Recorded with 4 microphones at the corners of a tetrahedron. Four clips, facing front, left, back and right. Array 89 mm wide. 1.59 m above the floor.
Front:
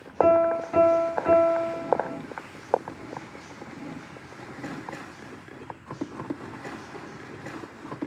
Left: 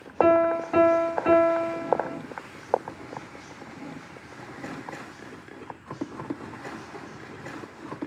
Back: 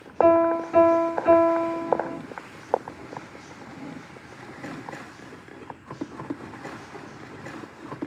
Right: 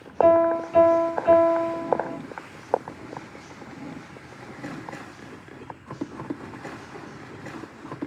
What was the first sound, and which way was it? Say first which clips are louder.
A piano: right 2 dB, back 2 dB; 85° left.